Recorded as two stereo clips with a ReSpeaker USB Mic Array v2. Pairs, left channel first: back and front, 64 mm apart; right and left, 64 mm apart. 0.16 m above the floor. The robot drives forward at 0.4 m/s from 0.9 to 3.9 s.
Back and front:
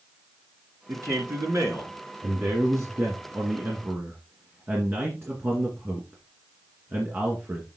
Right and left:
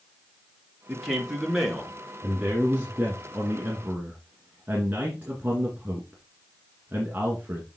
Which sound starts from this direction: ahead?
A man speaking, at 0.9 s.